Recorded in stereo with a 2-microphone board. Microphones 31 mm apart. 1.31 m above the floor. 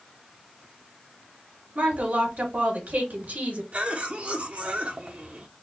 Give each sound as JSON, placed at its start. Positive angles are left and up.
{"t": 1.8, "sound": "a woman speaking", "side_deg": -70, "distance_m": 1.9}
{"t": 3.7, "sound": "a cough", "side_deg": -55, "distance_m": 0.8}